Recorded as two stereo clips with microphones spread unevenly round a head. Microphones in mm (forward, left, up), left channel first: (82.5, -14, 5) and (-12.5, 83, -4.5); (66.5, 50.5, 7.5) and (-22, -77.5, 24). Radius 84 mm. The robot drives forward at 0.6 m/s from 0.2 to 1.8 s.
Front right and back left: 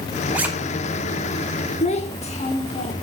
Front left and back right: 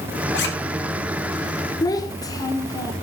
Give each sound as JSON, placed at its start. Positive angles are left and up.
{"t": 0.3, "sound": "a zipper", "azimuth_deg": 55, "distance_m": 1.8}
{"t": 1.8, "sound": "a child speaking", "azimuth_deg": -10, "distance_m": 1.6}